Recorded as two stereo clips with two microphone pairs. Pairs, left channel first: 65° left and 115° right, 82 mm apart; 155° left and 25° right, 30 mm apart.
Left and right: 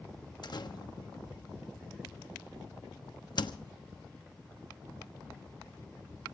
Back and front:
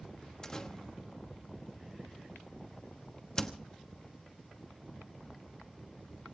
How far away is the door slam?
About 1.1 m.